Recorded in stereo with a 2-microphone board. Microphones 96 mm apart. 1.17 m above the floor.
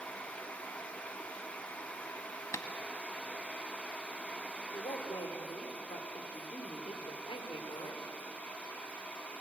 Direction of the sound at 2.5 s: 30° left (ahead or behind).